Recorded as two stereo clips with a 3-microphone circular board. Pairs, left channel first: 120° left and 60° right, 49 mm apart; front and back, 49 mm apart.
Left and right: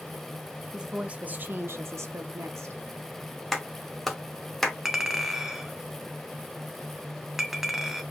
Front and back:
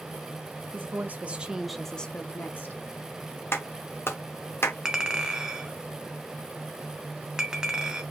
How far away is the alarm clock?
No alarm clock in this recording.